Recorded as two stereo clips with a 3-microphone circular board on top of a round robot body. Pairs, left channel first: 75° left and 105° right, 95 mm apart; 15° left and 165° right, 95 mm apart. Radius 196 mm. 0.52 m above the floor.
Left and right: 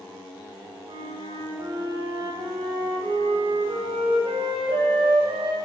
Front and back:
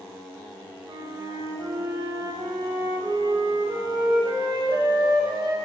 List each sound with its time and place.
0.9 s a flute: 125° right, 1.7 m